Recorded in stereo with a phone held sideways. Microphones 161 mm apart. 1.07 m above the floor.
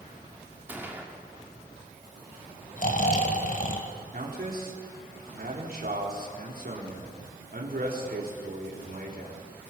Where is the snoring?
55° left (ahead or behind), 2 m.